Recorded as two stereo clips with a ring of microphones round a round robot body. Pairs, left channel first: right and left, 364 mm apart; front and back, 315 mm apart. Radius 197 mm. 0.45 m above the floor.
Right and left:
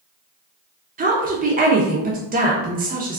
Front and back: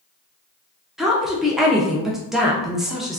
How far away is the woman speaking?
About 0.7 m.